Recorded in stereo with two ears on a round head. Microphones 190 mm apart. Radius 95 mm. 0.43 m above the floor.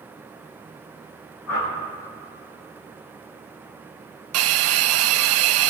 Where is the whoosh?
85° left, 5.5 m.